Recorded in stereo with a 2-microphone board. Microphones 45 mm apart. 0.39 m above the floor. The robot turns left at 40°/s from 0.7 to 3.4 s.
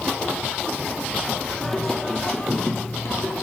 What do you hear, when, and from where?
1.6 s singing: 175° left, 2 m; by 3.3 s 110° left, 2 m